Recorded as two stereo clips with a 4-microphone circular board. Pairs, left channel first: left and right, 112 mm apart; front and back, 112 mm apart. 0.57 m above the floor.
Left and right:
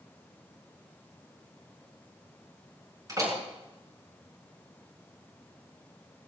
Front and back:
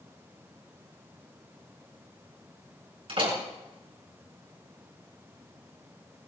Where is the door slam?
150° right, 6 m.